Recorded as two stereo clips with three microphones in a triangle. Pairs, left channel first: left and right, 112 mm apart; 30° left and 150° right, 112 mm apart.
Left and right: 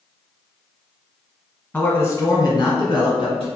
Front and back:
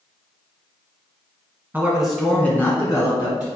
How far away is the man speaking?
About 1.2 m.